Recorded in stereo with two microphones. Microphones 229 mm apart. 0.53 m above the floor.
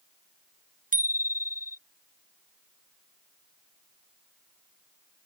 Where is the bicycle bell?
40° right (ahead or behind).